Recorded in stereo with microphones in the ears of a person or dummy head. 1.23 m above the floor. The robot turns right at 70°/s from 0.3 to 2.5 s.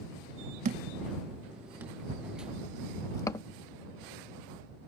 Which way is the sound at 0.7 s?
45° right (ahead or behind).